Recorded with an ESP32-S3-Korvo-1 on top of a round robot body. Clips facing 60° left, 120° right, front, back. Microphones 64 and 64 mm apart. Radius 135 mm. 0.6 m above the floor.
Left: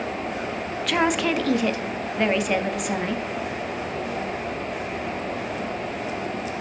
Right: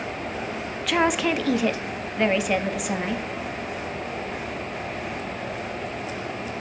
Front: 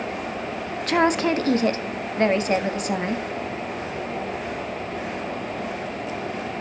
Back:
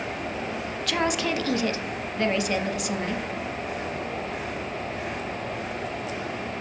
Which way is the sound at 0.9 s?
30° right.